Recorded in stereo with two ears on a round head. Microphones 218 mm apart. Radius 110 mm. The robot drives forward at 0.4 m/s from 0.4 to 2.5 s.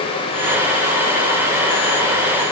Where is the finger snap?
I don't hear a finger snap.